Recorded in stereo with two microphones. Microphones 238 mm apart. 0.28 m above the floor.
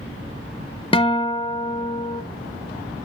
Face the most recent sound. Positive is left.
turn(degrees=20)  # may be behind; listen again after turning